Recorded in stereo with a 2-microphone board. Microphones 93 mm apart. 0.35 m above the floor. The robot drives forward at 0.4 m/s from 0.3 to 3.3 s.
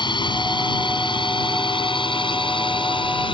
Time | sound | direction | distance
0.0 | a drone | 55° left (ahead or behind) | ?